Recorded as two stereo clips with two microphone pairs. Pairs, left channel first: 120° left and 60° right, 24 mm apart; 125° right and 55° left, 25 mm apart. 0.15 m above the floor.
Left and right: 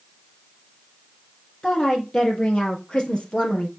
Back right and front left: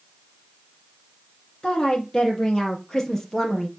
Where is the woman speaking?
170° left, 5 m; by 3.7 s 155° left, 4 m.